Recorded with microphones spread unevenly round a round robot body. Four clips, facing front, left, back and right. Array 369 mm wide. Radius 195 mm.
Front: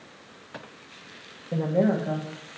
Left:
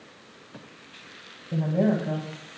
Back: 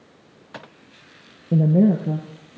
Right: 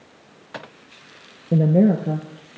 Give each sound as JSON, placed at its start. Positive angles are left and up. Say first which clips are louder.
{"t": 1.5, "sound": "a woman speaking", "louder": "right 7 dB, back 6 dB", "azimuth_deg": -120, "distance_m": 0.8}